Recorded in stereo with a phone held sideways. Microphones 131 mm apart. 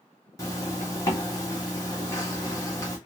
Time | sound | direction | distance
0.4 | a zipper | 25° left (ahead or behind) | 1.5 m